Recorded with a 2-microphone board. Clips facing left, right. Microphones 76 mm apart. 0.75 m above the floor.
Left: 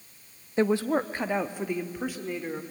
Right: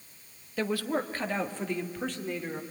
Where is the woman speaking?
25° left (ahead or behind), 0.9 m; by 2.6 s 5° left (ahead or behind), 2.5 m.